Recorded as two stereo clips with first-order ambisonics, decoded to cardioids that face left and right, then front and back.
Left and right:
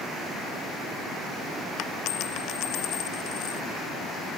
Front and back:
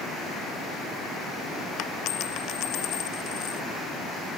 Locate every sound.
1.8 s a dropped coin: 45° left